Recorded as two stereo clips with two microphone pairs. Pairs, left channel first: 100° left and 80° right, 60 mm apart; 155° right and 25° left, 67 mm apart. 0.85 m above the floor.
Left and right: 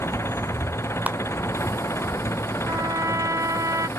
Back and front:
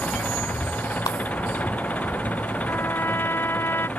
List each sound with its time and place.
0.0 s an engine running: 140° left
1.1 s a clap: 145° right
2.7 s a trumpet: 100° right